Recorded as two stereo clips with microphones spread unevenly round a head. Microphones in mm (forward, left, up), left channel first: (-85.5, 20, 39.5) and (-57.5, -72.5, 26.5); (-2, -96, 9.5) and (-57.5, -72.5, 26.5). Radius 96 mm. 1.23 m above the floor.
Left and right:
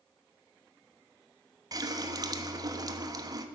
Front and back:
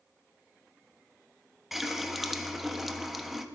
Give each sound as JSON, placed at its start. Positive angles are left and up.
{"t": 1.7, "sound": "a running tap", "azimuth_deg": -120, "distance_m": 1.0}